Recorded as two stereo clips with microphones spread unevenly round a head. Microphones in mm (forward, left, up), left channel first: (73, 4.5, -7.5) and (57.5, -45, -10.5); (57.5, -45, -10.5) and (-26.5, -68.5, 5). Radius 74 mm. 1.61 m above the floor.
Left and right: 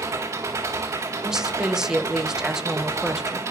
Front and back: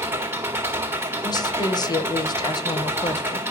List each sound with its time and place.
0.0 s an engine running: 115° right, 2.0 m
1.2 s a woman speaking: 30° right, 1.5 m